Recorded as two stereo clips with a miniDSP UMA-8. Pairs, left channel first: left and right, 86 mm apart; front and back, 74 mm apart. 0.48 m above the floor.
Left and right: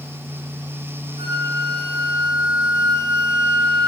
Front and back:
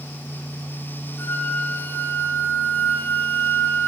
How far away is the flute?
About 2.5 m.